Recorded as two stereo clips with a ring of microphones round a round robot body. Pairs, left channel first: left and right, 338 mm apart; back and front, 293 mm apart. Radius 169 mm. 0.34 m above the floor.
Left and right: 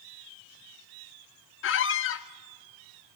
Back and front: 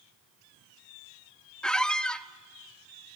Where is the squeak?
95° left, 0.7 m.